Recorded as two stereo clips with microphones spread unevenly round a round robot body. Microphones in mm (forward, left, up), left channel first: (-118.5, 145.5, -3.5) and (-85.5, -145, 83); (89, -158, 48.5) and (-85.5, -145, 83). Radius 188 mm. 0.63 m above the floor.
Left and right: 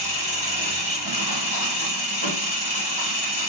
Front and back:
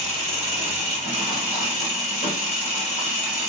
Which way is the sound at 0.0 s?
55° left.